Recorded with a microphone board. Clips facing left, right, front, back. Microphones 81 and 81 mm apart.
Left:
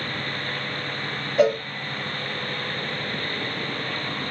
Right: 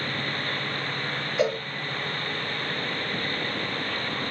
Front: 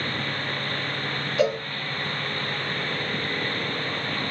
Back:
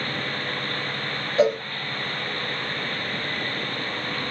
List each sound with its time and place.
1.4 s a cowbell: 130° left, 0.9 m